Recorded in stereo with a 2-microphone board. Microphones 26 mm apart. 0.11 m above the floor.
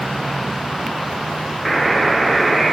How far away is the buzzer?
About 0.8 m.